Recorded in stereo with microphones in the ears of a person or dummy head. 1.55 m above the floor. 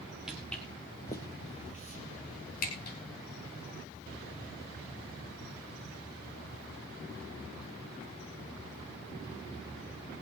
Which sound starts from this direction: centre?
Footsteps, at 0.3 s.